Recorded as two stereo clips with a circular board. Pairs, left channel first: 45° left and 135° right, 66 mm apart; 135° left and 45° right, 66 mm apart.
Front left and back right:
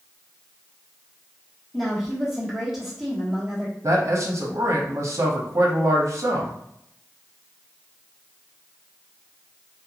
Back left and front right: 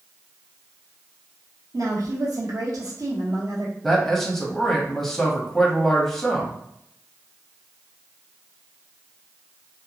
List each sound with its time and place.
1.7 s a woman speaking: 50° right, 1.0 m
3.8 s a man speaking: 140° right, 0.7 m